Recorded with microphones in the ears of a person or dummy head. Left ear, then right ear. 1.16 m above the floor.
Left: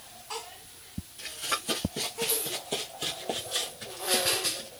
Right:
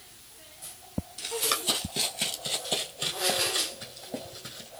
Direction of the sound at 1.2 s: 40° right (ahead or behind).